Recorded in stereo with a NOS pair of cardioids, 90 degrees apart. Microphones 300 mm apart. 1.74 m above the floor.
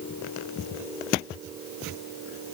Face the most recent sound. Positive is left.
No sound to turn to.